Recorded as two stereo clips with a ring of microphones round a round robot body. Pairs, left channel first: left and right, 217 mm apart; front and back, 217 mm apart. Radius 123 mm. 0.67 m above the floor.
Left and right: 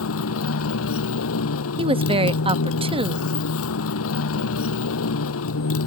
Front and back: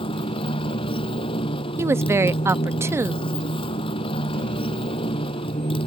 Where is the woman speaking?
115° right.